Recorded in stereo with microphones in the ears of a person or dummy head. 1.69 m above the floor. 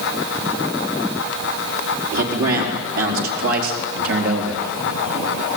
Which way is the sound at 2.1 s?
70° right (ahead or behind).